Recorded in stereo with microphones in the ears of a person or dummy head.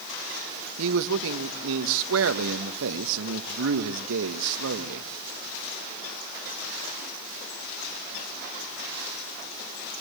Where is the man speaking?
75° right (ahead or behind), 1.2 m.